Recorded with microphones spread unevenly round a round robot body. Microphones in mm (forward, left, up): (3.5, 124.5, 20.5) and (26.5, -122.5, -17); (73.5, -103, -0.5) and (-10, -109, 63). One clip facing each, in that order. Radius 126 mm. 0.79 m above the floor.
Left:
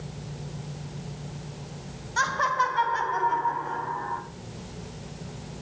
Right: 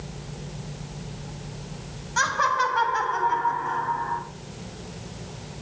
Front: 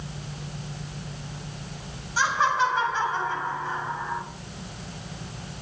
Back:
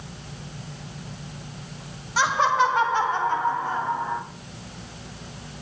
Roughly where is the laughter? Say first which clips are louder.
Right 2 dB, back 3 dB; behind.